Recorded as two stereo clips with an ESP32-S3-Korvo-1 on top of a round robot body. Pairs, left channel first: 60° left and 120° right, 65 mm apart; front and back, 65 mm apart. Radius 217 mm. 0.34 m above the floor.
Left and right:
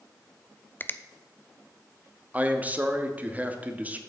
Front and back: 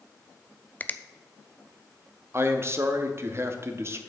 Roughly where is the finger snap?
Ahead left.